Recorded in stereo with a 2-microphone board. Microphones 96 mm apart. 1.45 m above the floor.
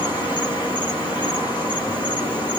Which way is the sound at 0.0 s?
50° left (ahead or behind).